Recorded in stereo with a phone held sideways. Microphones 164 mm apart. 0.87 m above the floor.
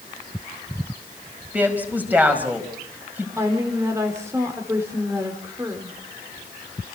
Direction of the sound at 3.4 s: 15° right (ahead or behind).